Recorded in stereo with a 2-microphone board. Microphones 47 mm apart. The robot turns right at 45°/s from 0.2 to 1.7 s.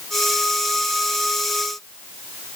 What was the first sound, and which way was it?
Only background noise.